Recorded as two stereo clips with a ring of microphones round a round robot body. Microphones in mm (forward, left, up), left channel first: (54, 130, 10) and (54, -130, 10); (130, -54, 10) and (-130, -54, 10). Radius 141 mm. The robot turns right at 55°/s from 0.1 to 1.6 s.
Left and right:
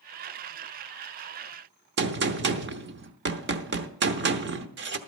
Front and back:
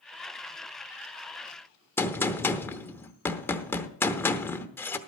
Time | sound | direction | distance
2.0 | a gunshot | 80° right | 1.0 m